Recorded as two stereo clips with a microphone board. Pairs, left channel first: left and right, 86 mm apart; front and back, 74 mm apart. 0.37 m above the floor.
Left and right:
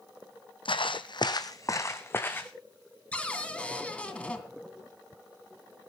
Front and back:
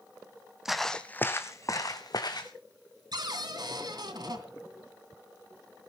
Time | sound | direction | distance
0.7 | footsteps | 95° left | 1.2 m
3.1 | a cupboard door | 165° left | 2.5 m